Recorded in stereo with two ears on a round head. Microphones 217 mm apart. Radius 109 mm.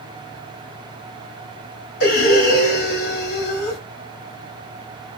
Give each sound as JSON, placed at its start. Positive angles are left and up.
{"t": 2.0, "sound": "breathing", "side_deg": 50, "distance_m": 1.5}